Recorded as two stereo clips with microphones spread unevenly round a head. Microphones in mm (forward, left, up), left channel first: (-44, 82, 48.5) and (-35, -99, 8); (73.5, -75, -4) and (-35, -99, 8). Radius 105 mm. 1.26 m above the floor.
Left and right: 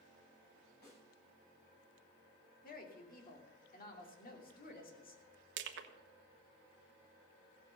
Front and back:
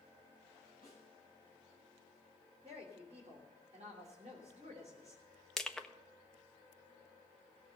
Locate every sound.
0.8 s a snare drum: 125° left, 8 m
2.6 s a woman speaking: 130° left, 3 m
5.6 s crushing: 75° right, 1.2 m